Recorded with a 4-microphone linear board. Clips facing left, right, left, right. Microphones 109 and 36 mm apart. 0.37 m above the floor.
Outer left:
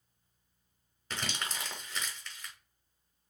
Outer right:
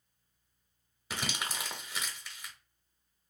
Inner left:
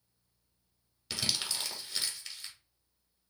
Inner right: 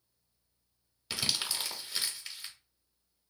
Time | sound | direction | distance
1.1 | crumpling | 10° right (ahead or behind) | 0.8 m